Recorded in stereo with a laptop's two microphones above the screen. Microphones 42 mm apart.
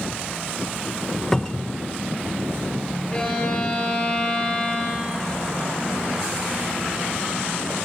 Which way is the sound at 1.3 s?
15° left (ahead or behind).